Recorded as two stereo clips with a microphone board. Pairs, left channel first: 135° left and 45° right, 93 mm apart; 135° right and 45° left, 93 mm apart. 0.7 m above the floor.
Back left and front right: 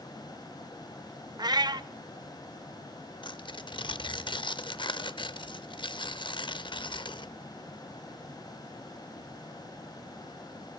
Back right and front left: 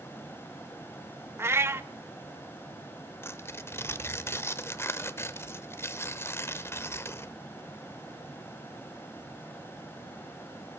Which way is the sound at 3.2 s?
165° left.